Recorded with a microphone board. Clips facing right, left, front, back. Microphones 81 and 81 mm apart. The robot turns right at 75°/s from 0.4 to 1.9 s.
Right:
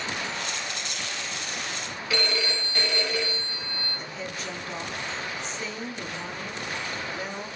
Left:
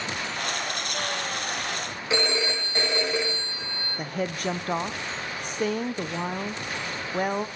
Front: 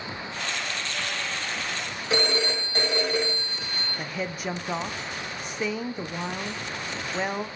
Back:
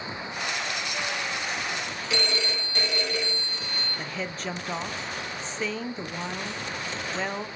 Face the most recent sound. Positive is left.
turn(degrees=80)